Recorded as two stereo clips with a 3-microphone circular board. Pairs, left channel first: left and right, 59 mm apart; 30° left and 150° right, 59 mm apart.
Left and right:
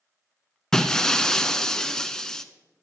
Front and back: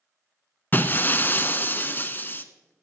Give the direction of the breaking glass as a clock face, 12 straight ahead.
11 o'clock.